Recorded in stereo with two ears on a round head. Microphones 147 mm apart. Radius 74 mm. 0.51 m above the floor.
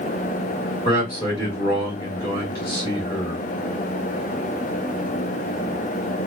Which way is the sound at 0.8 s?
20° left (ahead or behind).